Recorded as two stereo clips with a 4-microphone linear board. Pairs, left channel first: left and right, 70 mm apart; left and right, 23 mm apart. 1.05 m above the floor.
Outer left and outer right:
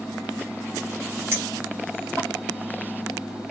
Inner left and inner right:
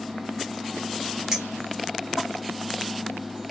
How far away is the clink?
About 4 m.